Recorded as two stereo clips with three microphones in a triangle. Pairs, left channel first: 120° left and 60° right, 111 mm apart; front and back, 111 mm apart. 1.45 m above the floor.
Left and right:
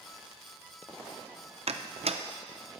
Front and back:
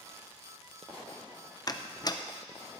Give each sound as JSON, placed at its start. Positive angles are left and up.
{"t": 1.7, "sound": "a door slam", "azimuth_deg": -50, "distance_m": 0.6}